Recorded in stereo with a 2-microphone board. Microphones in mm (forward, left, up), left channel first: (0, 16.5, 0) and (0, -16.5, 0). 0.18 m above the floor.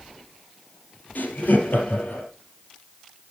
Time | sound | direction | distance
1.1 | laughter | 75° left (ahead or behind) | 4.5 m